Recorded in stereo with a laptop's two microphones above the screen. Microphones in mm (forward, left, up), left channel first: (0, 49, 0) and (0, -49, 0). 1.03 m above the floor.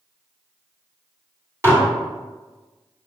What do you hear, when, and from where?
1.6 s dishes clattering: 30° right (ahead or behind), 1.6 m